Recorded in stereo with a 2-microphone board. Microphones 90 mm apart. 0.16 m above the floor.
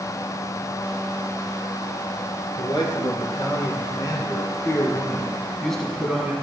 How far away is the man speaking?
About 3 m.